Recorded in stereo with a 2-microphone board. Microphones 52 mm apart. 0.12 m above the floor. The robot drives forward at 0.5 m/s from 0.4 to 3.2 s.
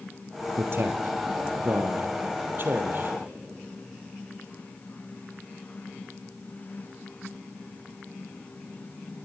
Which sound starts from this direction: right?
A man speaking, at 0.6 s.